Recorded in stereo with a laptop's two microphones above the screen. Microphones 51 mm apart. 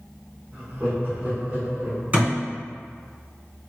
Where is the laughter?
30° right (ahead or behind), 0.7 m; by 2.0 s 35° right (ahead or behind), 1.7 m.